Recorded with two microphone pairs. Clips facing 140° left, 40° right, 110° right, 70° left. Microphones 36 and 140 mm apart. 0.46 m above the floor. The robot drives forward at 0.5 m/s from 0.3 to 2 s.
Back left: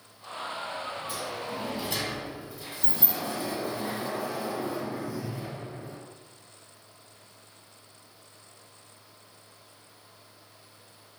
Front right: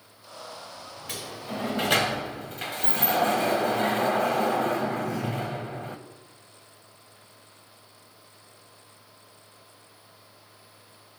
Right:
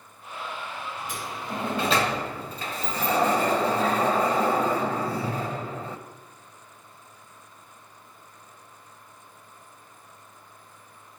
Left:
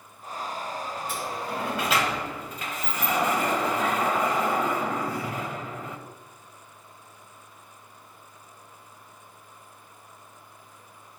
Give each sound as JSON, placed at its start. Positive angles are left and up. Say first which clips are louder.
{"t": 1.1, "sound": "a sliding door", "louder": "back left 1 dB, left 2 dB", "azimuth_deg": -40, "distance_m": 1.2}